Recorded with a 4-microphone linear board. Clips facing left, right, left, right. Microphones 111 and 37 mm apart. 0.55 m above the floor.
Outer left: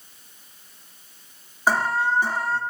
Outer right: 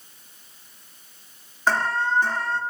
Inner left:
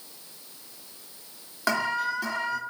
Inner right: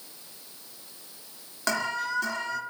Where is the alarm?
10° left (ahead or behind), 1.0 m.